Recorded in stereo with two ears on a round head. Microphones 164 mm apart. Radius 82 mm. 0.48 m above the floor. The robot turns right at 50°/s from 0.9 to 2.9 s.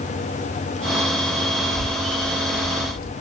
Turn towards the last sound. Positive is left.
turn(degrees=80)